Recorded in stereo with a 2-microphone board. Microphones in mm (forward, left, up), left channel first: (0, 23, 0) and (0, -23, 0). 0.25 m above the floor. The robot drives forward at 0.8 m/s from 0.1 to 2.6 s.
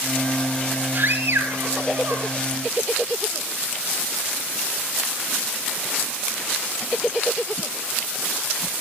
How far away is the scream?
About 4.5 m.